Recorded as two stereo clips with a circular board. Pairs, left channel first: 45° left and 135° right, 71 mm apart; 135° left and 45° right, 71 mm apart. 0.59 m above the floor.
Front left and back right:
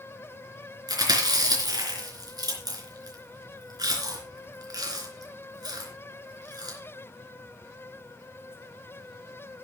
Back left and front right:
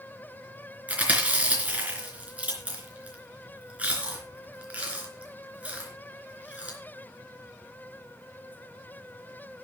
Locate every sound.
0.9 s chewing: 115° right, 3.5 m